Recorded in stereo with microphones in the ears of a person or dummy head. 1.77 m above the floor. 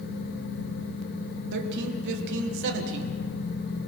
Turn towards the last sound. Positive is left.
turn(degrees=-65)  # may be behind; listen again after turning